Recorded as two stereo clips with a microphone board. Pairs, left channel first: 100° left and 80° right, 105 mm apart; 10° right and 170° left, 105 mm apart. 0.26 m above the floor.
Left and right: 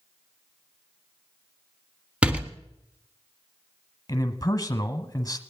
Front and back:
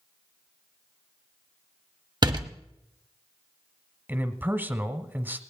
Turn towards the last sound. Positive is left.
turn(degrees=115)